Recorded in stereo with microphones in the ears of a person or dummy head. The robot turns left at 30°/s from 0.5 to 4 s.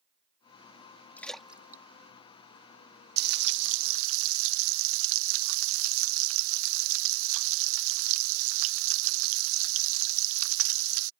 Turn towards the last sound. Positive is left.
turn(degrees=-75)  # may be behind; listen again after turning